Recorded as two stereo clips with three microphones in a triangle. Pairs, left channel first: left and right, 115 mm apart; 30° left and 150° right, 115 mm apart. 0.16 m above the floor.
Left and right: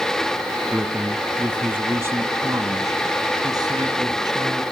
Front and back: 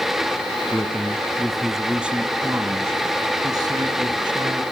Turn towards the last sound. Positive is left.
turn(degrees=-125)